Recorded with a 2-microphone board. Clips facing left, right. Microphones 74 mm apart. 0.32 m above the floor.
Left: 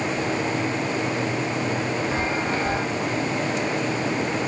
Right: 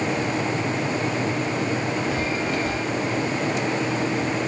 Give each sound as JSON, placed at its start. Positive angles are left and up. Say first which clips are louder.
{"t": 2.1, "sound": "a chime", "louder": "even", "side_deg": 30}